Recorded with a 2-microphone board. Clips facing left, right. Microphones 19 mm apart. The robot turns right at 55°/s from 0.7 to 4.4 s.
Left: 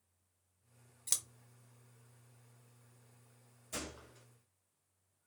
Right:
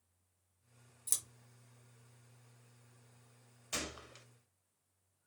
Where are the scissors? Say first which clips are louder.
Left 3 dB; 25° left (ahead or behind), 0.7 m.